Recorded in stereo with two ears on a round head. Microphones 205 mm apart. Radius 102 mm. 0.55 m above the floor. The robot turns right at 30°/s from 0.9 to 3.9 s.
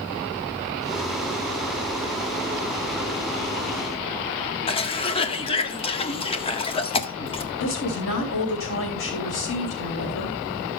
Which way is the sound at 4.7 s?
25° left (ahead or behind).